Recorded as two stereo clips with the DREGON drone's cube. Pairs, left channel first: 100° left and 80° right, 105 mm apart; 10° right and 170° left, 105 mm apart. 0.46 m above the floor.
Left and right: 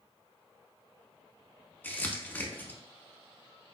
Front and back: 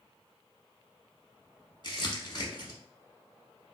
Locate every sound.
1.8 s crumpling: 30° left, 0.8 m